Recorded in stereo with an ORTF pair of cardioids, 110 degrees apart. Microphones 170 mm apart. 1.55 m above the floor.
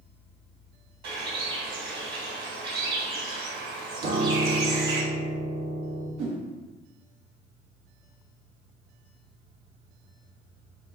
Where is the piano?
55° right, 2.5 m.